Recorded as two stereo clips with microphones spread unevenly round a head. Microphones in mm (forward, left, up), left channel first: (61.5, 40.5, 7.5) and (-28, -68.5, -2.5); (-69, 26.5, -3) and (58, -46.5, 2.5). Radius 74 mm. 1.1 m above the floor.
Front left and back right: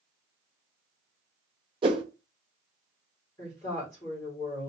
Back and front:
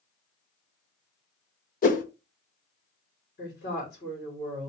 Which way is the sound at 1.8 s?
175° left.